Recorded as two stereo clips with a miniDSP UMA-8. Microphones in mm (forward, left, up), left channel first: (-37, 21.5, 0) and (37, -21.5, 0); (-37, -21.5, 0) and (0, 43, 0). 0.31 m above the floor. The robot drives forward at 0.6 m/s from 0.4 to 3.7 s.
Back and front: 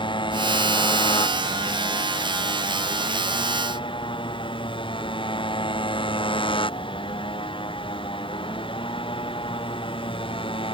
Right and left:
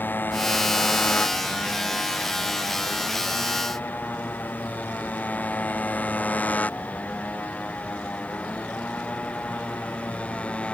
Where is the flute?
I don't hear a flute.